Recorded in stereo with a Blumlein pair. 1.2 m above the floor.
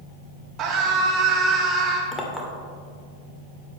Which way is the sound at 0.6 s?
30° right.